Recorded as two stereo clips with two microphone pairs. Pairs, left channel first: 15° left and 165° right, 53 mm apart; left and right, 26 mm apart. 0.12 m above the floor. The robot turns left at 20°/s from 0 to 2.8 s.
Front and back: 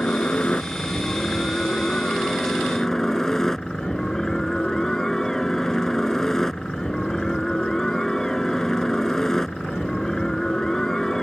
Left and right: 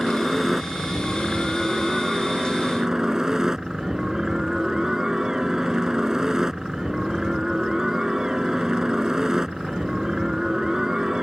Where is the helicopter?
Straight ahead; by 11.2 s 55° right.